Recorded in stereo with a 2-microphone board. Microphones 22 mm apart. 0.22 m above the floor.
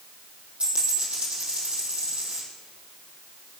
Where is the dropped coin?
70° right (ahead or behind), 4.5 m.